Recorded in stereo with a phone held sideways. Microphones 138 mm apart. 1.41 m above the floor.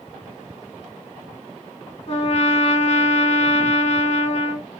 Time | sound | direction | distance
2.1 | a trumpet | 50° left (ahead or behind) | 1.6 m